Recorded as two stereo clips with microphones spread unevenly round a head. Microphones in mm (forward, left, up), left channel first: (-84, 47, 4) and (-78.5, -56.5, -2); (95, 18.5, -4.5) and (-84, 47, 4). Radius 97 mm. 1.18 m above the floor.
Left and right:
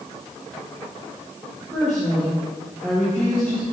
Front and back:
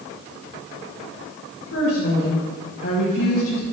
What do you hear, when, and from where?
1.7 s a woman speaking: 5° left, 1.5 m